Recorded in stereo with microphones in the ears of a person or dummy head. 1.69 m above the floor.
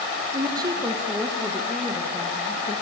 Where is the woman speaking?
25° right (ahead or behind), 2 m; by 2.7 s 25° left (ahead or behind), 2.5 m.